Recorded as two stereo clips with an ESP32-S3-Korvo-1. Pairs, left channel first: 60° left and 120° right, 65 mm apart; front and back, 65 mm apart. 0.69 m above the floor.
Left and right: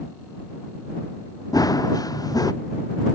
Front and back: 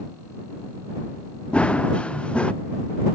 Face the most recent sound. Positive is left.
turn(degrees=70)